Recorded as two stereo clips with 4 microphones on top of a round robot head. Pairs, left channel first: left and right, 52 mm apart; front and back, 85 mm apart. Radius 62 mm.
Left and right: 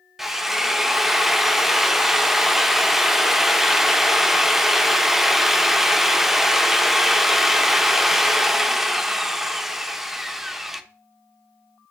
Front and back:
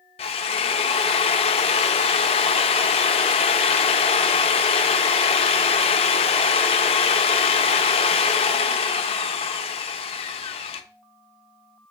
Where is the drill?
5° right, 0.6 m.